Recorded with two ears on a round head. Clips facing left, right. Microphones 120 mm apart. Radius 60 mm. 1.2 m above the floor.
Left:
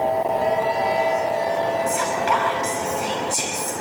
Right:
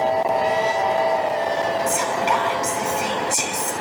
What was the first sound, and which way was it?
Whispering, 25° right (ahead or behind).